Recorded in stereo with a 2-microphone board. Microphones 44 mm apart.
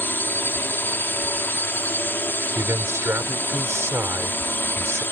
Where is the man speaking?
80° right.